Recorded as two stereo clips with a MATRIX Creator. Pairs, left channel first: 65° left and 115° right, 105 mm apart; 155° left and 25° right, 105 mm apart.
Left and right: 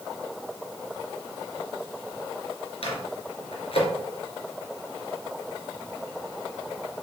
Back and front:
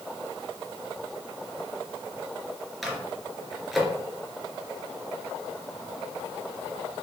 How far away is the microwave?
About 2.5 m.